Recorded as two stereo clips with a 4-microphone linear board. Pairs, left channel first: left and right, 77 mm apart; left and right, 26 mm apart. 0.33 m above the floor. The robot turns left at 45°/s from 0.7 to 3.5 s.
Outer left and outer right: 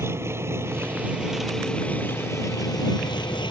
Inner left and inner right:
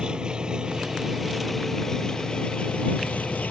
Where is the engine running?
145° right; by 3.5 s 90° left.